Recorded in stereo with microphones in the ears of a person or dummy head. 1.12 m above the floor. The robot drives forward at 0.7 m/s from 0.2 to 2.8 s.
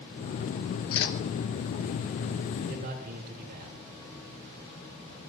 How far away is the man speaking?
About 3.5 m.